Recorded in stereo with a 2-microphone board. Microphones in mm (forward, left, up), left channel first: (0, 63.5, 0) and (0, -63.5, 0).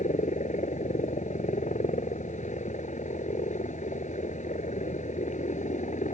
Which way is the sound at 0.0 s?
70° left (ahead or behind).